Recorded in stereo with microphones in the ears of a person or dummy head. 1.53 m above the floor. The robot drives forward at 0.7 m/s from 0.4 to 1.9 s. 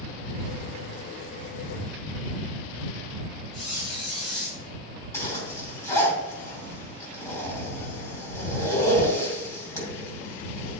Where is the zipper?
15° left (ahead or behind), 3 m.